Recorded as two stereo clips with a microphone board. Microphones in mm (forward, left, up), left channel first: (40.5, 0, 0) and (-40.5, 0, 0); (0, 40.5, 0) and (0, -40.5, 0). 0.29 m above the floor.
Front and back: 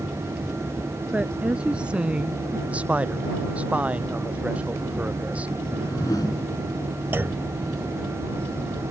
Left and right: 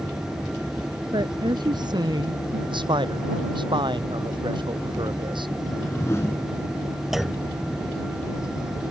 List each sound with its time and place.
1.1 s a woman speaking: 105° right; by 2.6 s 100° right
2.7 s a man speaking: 105° right
5.6 s a whoosh: 35° left
7.1 s a clunk: 170° right